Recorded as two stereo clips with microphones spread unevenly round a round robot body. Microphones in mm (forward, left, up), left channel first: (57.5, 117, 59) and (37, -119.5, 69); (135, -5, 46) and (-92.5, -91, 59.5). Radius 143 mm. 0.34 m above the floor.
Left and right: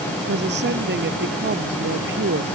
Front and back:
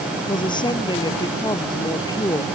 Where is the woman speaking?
50° right; by 2.5 s 55° right.